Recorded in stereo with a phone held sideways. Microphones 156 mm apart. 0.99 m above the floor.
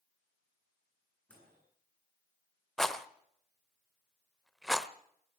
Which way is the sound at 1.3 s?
5° left (ahead or behind).